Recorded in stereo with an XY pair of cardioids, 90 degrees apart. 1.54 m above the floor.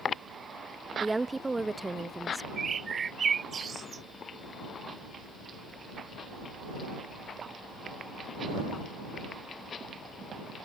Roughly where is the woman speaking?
Ahead.